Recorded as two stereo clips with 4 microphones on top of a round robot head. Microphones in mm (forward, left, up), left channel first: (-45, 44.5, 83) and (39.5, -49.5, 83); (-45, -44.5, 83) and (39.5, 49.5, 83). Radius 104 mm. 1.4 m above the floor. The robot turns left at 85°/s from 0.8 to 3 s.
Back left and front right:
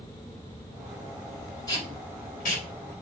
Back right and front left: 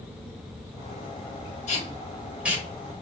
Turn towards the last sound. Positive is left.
turn(degrees=80)